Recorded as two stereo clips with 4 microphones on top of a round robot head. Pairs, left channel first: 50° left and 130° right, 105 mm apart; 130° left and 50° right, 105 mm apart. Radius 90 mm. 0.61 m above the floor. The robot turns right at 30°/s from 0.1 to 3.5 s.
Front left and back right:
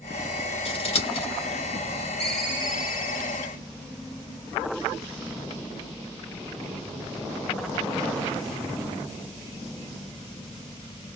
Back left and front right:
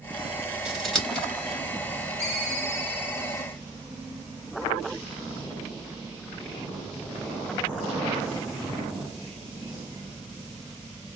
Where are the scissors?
40° left, 3.5 m; by 1.3 s 55° left, 3.5 m.